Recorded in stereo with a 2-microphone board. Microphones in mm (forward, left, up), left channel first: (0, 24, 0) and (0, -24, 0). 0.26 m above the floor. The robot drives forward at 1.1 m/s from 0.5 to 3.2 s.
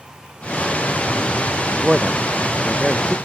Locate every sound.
1.7 s a man speaking: 10° right (ahead or behind); by 3.2 s 15° right (ahead or behind)